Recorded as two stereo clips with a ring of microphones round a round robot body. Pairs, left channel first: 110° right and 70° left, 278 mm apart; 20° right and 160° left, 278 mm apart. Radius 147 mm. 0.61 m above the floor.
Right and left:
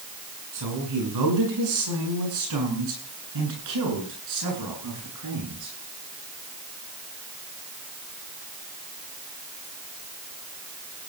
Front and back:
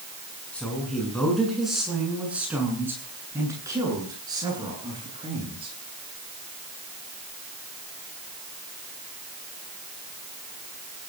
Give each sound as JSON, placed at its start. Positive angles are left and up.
{"t": 0.5, "sound": "a woman speaking", "azimuth_deg": 65, "distance_m": 9.0}